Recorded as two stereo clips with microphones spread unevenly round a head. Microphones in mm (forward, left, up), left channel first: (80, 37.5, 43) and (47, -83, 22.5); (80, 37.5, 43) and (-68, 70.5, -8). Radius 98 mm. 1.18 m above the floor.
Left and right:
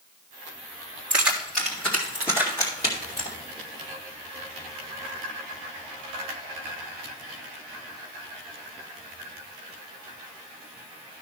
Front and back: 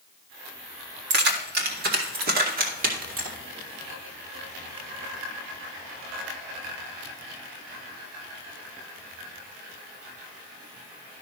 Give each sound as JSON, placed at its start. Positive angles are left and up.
{"t": 1.1, "sound": "keys jangling", "azimuth_deg": 175, "distance_m": 1.8}